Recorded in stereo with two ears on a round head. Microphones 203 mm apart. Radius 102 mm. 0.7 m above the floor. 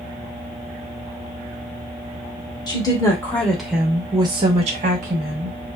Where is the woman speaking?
20° left (ahead or behind), 1.1 m; by 5.6 s 45° right (ahead or behind), 1.1 m.